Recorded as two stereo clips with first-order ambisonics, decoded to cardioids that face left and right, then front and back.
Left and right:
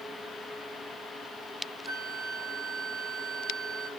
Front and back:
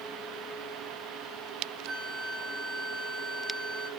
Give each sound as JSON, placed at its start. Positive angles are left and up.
{"t": 1.9, "sound": "a flute", "azimuth_deg": -135, "distance_m": 1.3}